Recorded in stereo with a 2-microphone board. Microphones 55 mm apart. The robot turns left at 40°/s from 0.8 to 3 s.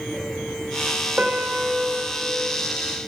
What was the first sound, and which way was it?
A piano, 20° right (ahead or behind).